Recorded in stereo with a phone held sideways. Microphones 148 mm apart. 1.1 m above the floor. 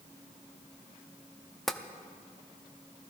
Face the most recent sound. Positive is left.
turn(degrees=0)  # may be behind; listen again after turning